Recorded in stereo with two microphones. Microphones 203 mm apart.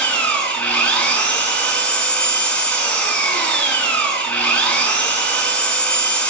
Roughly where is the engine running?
Centre.